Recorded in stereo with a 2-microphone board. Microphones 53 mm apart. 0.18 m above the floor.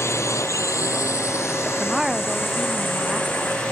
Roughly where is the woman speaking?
Centre.